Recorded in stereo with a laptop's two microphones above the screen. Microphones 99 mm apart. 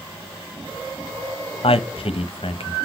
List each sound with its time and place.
1.6 s a man speaking: 70° left (ahead or behind), 0.7 m